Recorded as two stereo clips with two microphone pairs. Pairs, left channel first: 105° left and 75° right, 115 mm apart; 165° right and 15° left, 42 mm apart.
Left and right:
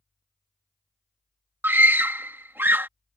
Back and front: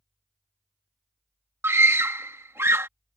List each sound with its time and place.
1.6 s a scream: 5° right